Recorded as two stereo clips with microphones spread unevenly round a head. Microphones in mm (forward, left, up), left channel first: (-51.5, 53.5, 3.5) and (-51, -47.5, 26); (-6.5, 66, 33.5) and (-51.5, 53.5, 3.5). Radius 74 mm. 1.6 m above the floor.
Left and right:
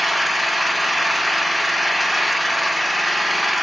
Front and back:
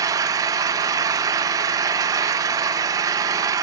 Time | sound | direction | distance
0.0 | an engine running | 170° right | 1.0 m